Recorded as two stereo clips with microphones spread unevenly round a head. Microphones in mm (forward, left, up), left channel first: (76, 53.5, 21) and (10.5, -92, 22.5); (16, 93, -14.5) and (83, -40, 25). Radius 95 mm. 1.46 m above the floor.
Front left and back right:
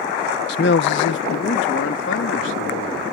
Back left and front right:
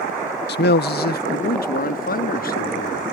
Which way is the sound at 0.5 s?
105° left.